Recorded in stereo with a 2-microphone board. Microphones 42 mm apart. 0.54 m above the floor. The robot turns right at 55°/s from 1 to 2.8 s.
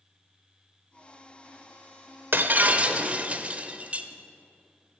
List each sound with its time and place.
2.3 s breaking glass: 60° right (ahead or behind), 0.8 m; by 4.1 s 35° right (ahead or behind), 0.8 m